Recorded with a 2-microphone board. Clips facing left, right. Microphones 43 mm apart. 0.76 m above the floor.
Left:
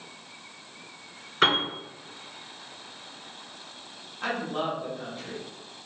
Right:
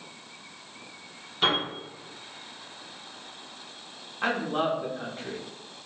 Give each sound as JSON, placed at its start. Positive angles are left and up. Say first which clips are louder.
{"t": 1.4, "sound": "a piano", "louder": "left 3 dB", "side_deg": 75, "distance_m": 1.8}
{"t": 4.2, "sound": "a woman speaking", "louder": "right 3 dB", "side_deg": -30, "distance_m": 0.7}